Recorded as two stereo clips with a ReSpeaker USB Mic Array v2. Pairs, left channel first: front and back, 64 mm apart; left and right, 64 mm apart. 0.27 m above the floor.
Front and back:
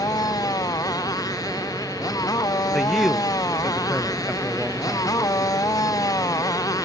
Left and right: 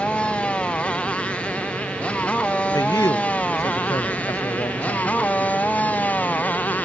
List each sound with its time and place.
0.0 s a motorcycle: 15° left; by 6.9 s 25° left
2.7 s a man speaking: 90° left